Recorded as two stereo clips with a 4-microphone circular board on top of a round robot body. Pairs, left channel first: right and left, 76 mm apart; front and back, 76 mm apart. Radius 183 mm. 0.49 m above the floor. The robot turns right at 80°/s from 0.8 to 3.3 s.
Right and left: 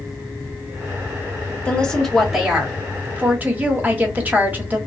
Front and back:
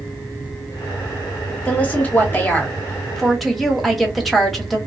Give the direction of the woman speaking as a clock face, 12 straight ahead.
1 o'clock.